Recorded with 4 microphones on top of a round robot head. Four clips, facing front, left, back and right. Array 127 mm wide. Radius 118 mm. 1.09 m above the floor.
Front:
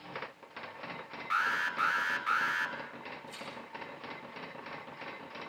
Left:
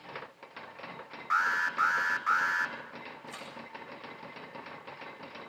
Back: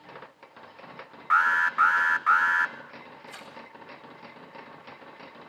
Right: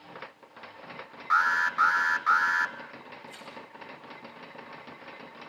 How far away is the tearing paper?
About 7.5 m.